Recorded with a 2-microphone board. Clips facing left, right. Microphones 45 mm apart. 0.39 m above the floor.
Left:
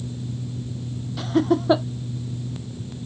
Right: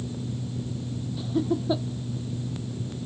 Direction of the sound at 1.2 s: 70° left (ahead or behind).